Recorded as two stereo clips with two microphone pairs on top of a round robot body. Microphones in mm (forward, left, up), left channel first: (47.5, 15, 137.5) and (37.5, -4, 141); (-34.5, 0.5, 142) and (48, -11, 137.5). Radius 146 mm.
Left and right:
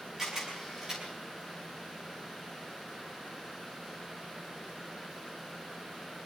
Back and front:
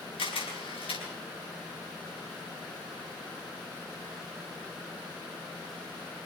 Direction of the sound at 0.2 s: 175° left.